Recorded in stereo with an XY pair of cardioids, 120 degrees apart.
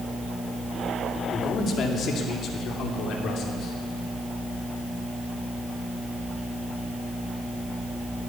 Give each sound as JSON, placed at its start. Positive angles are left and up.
{"t": 1.3, "sound": "a man speaking", "azimuth_deg": 50, "distance_m": 2.5}